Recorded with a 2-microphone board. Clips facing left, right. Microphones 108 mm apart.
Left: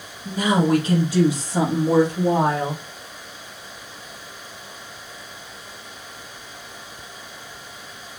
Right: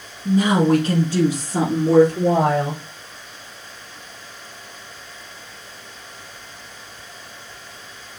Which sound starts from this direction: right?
A woman speaking, at 0.2 s.